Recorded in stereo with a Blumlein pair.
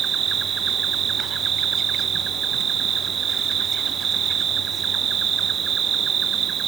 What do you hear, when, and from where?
0.0 s an insect: 25° right